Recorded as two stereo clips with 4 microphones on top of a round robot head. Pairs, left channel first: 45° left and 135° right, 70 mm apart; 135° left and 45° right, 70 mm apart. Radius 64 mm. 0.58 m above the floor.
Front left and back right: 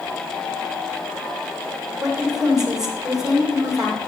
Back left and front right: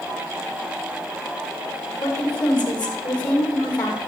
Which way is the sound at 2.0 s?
145° left.